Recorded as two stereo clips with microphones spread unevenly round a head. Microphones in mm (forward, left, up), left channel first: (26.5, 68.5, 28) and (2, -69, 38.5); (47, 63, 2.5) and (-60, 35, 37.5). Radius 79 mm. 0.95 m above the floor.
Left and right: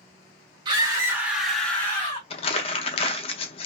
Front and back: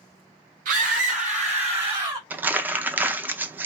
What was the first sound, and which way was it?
A scream, 160° right.